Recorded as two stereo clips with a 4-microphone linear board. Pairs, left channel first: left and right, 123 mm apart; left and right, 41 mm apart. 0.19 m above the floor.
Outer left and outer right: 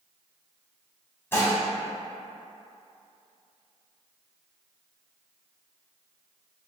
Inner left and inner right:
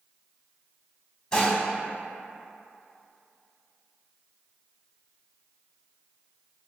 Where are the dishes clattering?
20° left (ahead or behind), 0.8 m.